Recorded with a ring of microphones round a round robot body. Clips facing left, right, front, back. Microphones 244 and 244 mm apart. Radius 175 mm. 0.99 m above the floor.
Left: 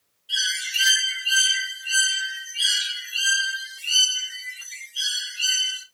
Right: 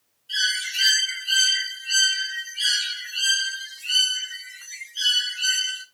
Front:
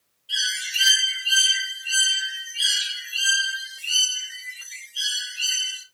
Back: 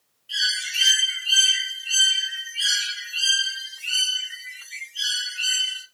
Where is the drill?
No drill in this recording.